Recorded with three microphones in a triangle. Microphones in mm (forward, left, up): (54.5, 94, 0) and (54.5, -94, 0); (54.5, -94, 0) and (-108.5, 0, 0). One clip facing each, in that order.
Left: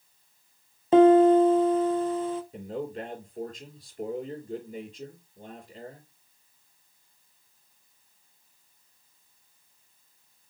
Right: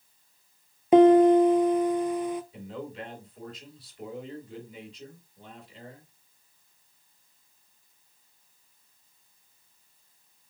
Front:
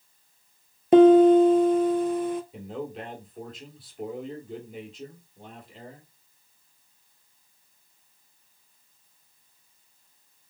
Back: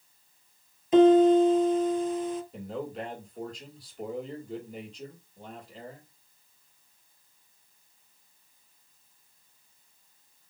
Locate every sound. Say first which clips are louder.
0.9 s a piano: even, front 4 dB; 15° right, 0.8 m
2.5 s a man speaking: left 4 dB, even; 55° left, 2.5 m